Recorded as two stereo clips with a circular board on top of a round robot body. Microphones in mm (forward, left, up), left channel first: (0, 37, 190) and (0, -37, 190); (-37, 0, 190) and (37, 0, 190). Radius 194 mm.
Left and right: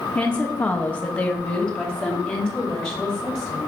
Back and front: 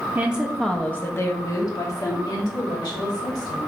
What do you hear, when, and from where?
0.1 s a woman speaking: 40° left, 0.7 m; by 3.6 s 170° left, 1.8 m